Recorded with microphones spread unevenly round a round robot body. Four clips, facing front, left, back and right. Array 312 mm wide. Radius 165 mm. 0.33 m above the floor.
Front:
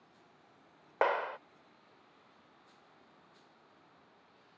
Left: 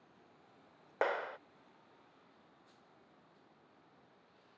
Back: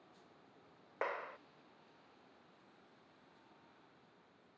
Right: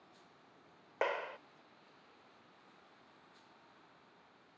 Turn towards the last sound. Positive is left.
turn(degrees=5)